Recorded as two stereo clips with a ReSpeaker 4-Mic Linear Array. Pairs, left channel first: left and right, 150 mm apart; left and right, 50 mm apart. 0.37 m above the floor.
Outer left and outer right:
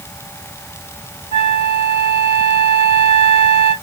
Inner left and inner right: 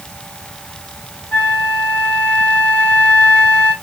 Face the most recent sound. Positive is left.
turn(degrees=40)  # may be behind; listen again after turning